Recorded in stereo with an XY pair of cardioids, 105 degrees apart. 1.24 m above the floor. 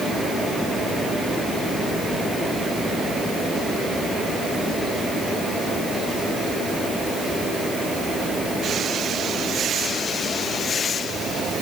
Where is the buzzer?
No buzzer in this recording.